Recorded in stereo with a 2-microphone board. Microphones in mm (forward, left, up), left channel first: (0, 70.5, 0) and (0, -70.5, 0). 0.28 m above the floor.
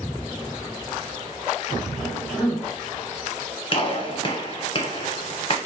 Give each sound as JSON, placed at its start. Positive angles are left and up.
{"t": 1.9, "sound": "a cough", "side_deg": -5, "distance_m": 1.9}
{"t": 3.7, "sound": "a gunshot", "side_deg": 35, "distance_m": 0.9}